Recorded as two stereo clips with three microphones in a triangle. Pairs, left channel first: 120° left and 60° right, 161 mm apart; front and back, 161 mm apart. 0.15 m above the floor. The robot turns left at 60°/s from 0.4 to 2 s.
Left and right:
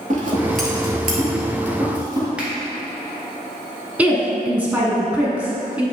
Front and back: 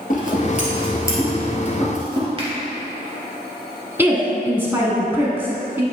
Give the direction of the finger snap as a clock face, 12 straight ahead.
5 o'clock.